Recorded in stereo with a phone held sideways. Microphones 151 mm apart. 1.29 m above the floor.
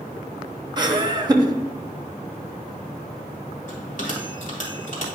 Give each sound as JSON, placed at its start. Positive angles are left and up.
{"t": 0.8, "sound": "laughter", "side_deg": -30, "distance_m": 0.9}
{"t": 3.7, "sound": "a bell", "side_deg": 60, "distance_m": 2.0}